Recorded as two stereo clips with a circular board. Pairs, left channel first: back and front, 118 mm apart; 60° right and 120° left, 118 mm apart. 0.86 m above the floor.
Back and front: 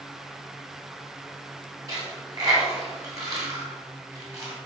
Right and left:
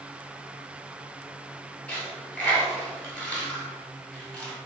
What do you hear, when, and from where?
1.9 s a dropped coin: 10° left, 0.9 m